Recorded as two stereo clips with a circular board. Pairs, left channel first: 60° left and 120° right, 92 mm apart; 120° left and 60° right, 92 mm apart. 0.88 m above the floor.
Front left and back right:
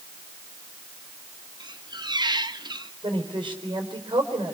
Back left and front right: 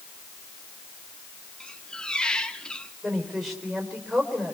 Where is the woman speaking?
155° right, 4.5 m.